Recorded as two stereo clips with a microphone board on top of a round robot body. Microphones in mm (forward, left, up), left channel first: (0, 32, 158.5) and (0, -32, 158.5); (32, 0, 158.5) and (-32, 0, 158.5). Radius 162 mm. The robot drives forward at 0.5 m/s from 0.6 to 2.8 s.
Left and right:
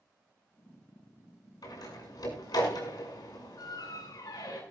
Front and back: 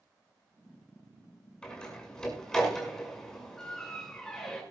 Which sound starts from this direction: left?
A door slam, at 1.6 s.